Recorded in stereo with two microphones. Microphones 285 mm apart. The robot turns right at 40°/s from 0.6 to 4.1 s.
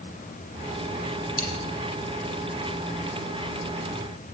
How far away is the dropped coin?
About 1.2 m.